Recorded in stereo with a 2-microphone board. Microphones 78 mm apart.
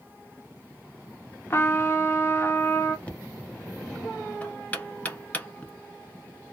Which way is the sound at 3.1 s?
20° left (ahead or behind).